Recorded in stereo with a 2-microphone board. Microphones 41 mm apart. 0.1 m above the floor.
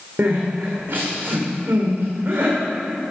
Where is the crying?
50° right (ahead or behind), 4 m.